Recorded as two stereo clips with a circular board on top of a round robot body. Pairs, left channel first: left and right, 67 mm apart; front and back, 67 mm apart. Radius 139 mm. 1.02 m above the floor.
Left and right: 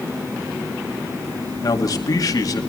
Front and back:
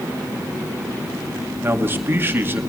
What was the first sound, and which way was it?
A man speaking, 120° left.